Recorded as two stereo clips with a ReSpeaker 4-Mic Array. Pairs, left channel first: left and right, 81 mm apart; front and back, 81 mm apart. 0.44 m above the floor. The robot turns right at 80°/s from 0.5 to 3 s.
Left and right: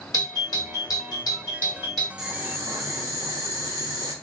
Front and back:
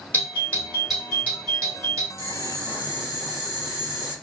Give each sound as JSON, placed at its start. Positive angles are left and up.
{"t": 0.1, "sound": "a doorbell", "azimuth_deg": 65, "distance_m": 2.5}
{"t": 2.2, "sound": "boiling", "azimuth_deg": -165, "distance_m": 1.8}